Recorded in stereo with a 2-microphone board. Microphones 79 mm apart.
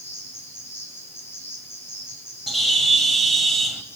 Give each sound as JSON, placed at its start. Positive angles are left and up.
{"t": 0.0, "sound": "an insect", "side_deg": 30, "distance_m": 3.0}
{"t": 2.5, "sound": "a bird", "side_deg": 0, "distance_m": 1.2}